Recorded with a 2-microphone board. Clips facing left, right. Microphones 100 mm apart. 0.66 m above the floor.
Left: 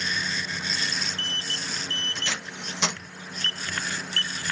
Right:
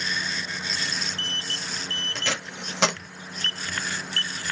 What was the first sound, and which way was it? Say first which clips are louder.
Tape being pulled: right 3 dB; 80° right.